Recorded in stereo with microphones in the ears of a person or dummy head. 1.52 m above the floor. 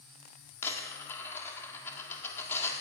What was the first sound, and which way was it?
A dropped coin, 10° left (ahead or behind).